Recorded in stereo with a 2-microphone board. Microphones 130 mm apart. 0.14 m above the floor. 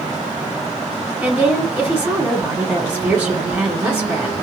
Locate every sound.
1.2 s a woman speaking: 10° right (ahead or behind), 1.8 m